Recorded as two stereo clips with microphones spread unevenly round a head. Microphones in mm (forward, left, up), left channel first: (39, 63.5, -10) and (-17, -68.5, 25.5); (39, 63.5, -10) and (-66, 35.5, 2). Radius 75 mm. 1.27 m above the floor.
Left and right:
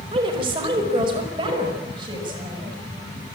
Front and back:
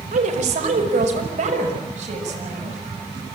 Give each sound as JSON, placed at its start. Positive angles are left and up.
{"t": 0.1, "sound": "a woman speaking", "azimuth_deg": -170, "distance_m": 4.5}